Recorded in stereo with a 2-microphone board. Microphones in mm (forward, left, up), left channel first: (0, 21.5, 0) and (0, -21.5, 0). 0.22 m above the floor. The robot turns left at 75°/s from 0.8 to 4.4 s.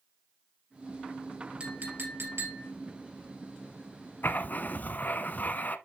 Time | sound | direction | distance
1.6 | a clink | 30° right | 3.5 m
4.2 | writing | 55° left (ahead or behind) | 0.8 m